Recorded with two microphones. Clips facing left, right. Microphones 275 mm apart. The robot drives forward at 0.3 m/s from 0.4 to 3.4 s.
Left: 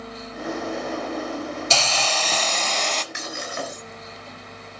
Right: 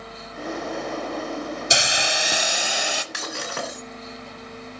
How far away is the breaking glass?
About 3.5 m.